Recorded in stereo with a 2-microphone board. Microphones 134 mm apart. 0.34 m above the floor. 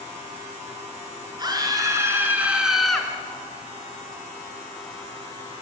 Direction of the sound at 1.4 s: 30° right (ahead or behind).